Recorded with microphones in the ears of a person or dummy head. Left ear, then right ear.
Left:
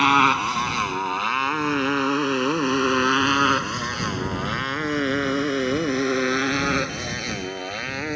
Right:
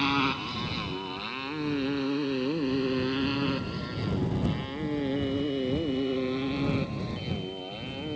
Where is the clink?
No clink in this recording.